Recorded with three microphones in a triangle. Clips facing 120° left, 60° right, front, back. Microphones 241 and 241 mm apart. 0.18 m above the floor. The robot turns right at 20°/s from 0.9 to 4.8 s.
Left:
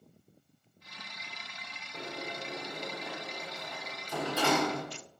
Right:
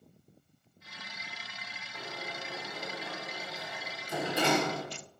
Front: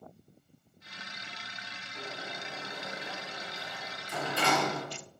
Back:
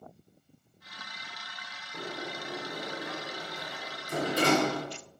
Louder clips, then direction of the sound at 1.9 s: Left 3 dB, back 5 dB; straight behind.